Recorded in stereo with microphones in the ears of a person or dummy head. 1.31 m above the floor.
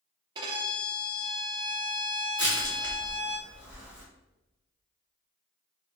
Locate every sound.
0.3 s a violin: 30° right (ahead or behind), 0.8 m
2.4 s crushing: centre (ahead or behind), 1.1 m